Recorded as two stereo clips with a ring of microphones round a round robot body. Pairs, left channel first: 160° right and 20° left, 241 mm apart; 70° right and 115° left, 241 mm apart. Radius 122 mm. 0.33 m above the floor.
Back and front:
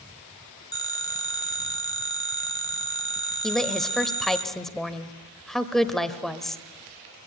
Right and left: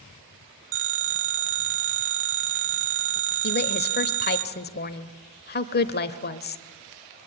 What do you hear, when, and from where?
0.7 s a phone ringing: 130° left, 1.3 m
3.4 s a woman speaking: 70° right, 1.1 m